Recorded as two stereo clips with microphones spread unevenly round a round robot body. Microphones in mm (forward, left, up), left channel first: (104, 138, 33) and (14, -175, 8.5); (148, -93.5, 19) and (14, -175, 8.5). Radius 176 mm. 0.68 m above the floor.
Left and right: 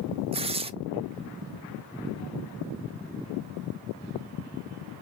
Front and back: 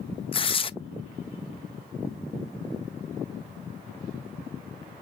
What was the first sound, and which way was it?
Tearing paper, 30° right.